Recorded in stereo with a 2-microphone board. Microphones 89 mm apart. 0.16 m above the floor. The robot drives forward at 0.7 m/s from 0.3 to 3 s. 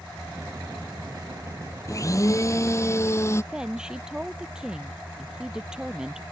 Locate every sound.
1.9 s a blender: 40° left (ahead or behind); by 3.4 s 30° left (ahead or behind)
3.5 s a woman speaking: 10° right (ahead or behind)